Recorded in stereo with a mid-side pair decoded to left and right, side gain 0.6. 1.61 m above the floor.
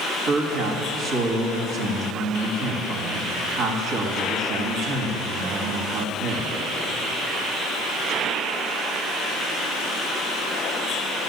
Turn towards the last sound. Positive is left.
turn(degrees=-70)